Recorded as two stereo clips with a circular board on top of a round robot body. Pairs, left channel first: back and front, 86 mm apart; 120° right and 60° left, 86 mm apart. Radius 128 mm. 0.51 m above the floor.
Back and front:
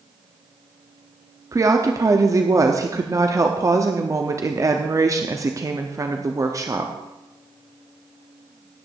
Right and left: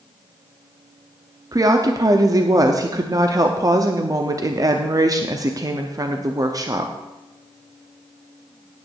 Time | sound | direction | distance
1.5 | a woman speaking | 35° left | 1.0 m